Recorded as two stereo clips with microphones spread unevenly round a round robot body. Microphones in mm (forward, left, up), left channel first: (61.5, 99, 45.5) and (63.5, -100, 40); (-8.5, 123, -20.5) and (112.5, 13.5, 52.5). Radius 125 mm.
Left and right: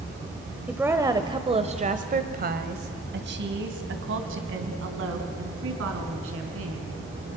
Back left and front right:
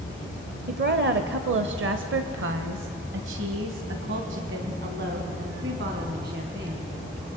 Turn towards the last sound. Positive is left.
turn(degrees=-100)